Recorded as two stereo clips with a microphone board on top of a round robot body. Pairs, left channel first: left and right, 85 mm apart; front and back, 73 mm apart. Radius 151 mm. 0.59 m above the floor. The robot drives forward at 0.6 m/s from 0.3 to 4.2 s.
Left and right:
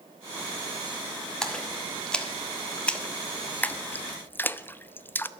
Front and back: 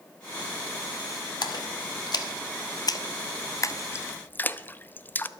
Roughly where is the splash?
Ahead.